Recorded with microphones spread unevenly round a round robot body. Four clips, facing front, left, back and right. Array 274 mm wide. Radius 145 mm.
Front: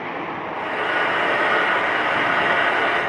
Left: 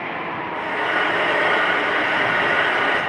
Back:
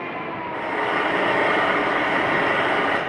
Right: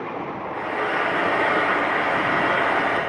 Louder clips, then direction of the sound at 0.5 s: Left 1 dB, even; 160° right.